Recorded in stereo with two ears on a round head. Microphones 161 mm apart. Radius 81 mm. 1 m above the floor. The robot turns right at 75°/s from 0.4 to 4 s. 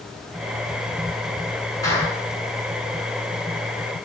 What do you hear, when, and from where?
1.8 s a clap: 20° left (ahead or behind), 7.5 m; by 2.1 s 5° right (ahead or behind), 7.5 m